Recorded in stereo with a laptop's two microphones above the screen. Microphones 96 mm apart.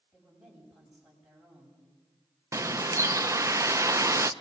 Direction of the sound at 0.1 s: 10° right (ahead or behind).